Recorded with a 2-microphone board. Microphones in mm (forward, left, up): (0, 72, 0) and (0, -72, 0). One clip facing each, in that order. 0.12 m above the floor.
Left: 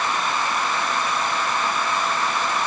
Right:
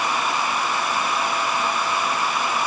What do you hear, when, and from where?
Only background noise.